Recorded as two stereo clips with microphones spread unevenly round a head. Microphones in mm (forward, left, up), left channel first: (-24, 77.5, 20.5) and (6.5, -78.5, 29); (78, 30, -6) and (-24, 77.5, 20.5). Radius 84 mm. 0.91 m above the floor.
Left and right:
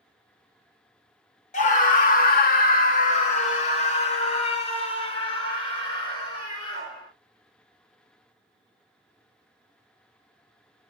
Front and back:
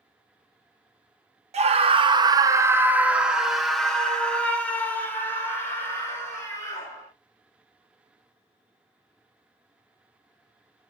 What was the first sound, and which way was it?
A scream, 130° left.